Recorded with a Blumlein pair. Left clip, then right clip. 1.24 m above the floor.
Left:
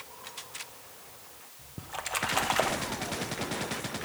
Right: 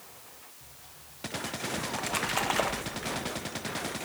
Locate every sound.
1.8 s a splash: straight ahead, 1.0 m